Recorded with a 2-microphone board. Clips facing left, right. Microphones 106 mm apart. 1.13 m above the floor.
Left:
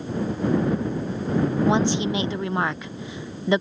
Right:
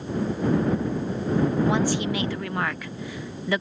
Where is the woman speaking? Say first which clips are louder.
Left 2 dB; 20° left (ahead or behind).